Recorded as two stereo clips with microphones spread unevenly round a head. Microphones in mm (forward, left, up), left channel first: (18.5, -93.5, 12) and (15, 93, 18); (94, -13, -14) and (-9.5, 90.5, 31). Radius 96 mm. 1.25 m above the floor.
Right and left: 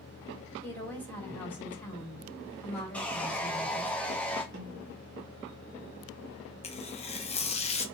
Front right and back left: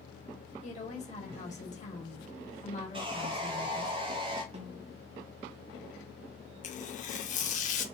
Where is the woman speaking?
10° right, 2.5 m.